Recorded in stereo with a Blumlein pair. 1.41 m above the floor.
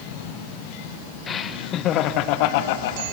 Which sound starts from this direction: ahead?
Laughter, at 1.3 s.